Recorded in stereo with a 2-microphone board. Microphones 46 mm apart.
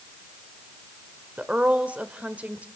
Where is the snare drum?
I don't hear a snare drum.